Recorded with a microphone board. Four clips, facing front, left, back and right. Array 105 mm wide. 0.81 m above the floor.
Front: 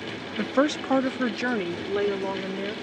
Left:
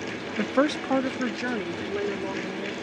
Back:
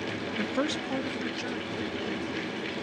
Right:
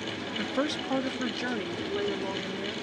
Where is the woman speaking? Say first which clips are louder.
Left 7 dB, front 8 dB; 55° left; by 2.7 s 5° left.